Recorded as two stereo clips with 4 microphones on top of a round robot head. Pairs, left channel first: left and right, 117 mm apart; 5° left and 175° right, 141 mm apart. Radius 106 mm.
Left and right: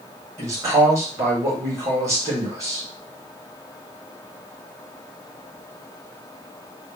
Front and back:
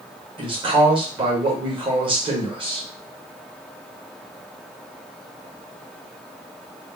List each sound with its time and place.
0.4 s a man speaking: 145° right, 1.4 m